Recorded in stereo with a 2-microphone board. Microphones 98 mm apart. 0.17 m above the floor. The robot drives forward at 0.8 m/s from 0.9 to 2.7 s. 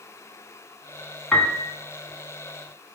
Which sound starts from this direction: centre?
A piano, at 1.3 s.